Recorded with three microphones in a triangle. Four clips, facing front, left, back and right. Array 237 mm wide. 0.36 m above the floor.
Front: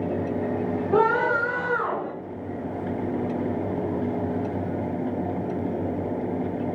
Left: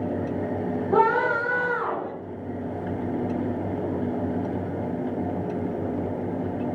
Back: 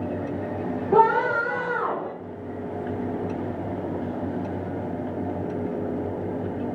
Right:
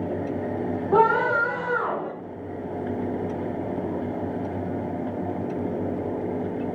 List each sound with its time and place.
0.9 s a scream: 150° right, 3 m